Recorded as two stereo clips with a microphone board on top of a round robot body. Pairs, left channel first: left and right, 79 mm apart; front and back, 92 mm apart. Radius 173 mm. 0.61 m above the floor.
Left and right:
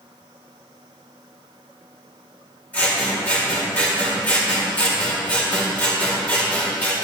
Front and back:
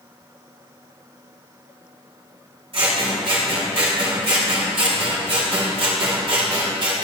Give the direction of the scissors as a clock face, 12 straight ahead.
7 o'clock.